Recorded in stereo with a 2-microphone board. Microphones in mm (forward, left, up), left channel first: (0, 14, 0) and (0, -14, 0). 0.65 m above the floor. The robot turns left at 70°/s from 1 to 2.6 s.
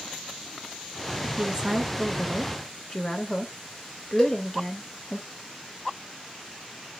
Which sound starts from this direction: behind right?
A woman speaking, at 1.4 s.